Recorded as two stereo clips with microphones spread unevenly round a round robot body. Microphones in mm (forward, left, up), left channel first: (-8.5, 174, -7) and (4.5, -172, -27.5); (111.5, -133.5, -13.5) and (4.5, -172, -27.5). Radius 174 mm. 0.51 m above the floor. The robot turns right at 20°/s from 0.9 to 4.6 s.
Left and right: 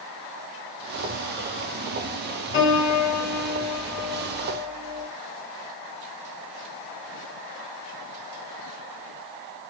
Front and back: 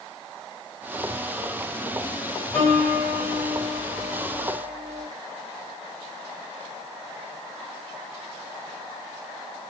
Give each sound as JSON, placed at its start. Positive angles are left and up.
{"t": 2.5, "sound": "a piano", "azimuth_deg": 45, "distance_m": 1.6}